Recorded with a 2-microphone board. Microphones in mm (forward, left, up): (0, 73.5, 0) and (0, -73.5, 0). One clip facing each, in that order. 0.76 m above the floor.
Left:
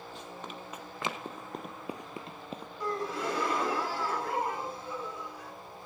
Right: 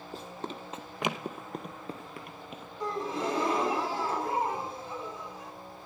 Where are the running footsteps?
40° right (ahead or behind), 1.6 m; by 2.7 s 40° left (ahead or behind), 1.2 m.